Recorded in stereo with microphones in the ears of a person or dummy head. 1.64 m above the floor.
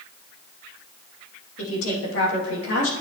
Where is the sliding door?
No sliding door in this recording.